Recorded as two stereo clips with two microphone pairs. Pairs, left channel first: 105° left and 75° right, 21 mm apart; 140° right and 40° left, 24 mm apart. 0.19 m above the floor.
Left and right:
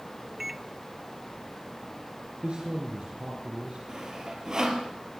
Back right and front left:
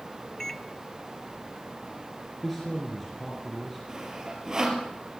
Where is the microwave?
90° right, 0.8 m.